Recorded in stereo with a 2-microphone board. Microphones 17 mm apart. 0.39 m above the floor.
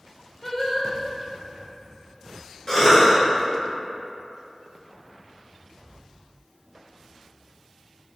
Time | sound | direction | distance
0.4 | singing | 15° left (ahead or behind) | 0.5 m
2.7 | a cough | 25° left (ahead or behind) | 1.2 m